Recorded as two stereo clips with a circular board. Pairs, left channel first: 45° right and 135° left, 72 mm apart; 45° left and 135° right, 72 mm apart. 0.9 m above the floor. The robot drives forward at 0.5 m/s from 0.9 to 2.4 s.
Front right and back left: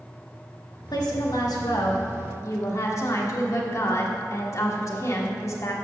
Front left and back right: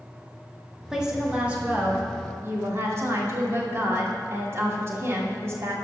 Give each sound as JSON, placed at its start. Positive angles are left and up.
{"t": 0.9, "sound": "a woman speaking", "azimuth_deg": -55, "distance_m": 1.5}